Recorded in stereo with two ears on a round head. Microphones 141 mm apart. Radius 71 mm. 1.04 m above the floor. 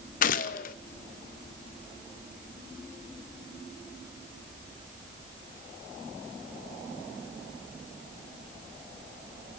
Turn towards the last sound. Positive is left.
turn(degrees=55)  # may be behind; listen again after turning